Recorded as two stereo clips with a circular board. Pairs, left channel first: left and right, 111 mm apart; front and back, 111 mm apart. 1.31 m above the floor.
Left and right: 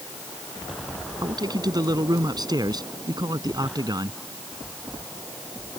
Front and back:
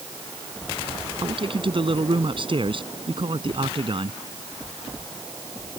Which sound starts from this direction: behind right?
A man speaking, at 1.2 s.